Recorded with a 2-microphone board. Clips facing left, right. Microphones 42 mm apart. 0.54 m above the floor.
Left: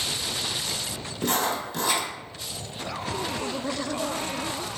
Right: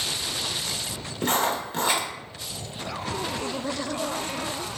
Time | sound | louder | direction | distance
1.2 | writing | right 2 dB | 40° right (ahead or behind) | 0.9 m